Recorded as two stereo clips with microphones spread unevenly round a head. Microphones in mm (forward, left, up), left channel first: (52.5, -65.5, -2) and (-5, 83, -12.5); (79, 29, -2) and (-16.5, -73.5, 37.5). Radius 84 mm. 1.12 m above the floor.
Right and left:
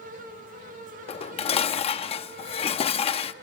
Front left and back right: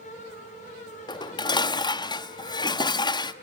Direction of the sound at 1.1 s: 20° right.